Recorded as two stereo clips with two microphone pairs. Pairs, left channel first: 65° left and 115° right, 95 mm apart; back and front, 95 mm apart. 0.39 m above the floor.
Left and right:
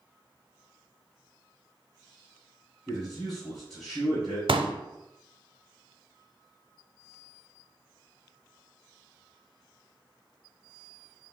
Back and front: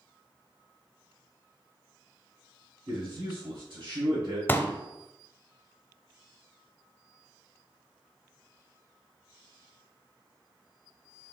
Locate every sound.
2.9 s a man speaking: 20° right, 1.7 m
4.5 s a pop: 115° right, 0.5 m